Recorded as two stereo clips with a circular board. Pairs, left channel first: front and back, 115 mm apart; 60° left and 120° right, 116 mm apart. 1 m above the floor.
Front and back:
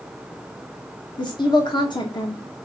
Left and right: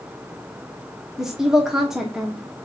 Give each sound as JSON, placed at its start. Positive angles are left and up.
{"t": 1.2, "sound": "a woman speaking", "azimuth_deg": -35, "distance_m": 0.9}